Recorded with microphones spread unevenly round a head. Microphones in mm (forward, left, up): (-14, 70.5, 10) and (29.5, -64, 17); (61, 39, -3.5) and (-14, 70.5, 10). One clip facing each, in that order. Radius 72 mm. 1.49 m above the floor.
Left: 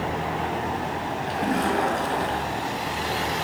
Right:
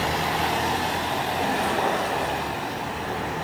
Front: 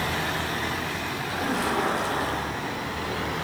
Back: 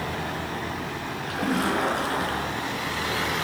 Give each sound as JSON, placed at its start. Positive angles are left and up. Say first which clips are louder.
{"t": 1.2, "sound": "a splash", "louder": "left 3 dB, back 2 dB", "azimuth_deg": 145, "distance_m": 4.0}